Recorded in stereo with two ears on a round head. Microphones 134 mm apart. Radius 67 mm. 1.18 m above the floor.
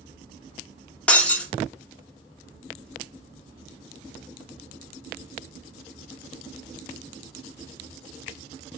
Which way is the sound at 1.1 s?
10° left (ahead or behind).